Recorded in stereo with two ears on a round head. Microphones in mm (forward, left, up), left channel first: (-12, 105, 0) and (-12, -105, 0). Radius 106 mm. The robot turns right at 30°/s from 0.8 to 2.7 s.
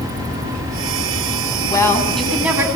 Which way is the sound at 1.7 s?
15° left (ahead or behind).